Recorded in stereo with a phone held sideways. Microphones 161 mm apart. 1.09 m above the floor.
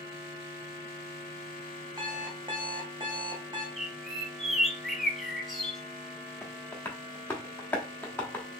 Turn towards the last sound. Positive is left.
turn(degrees=15)  # may be behind; listen again after turning